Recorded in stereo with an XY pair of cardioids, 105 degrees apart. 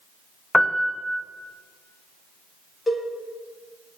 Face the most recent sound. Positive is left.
turn(degrees=10)